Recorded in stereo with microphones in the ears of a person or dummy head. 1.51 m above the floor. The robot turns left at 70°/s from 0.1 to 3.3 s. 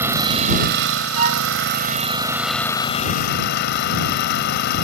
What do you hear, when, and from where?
0.0 s an engine running: 10° right; by 4.8 s 125° left
1.1 s a violin: 35° right (ahead or behind); by 1.5 s 55° right (ahead or behind)